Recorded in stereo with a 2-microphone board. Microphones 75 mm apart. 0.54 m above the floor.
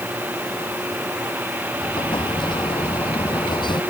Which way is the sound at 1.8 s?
85° left.